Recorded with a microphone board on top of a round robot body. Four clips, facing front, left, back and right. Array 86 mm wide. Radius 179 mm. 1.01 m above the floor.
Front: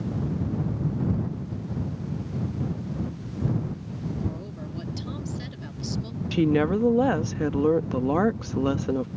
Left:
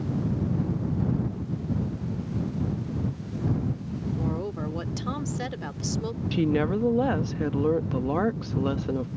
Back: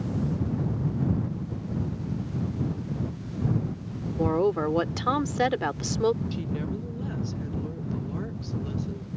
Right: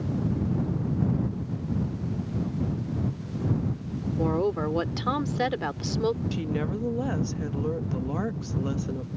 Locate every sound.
4.2 s a woman speaking: 160° right
6.3 s a woman speaking: 20° left